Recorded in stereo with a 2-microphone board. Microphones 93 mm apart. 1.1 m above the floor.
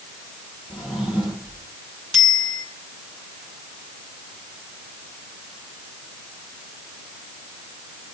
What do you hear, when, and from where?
0.7 s a drawer: 10° right (ahead or behind), 8.5 m
2.1 s a bicycle bell: 5° right (ahead or behind), 7.5 m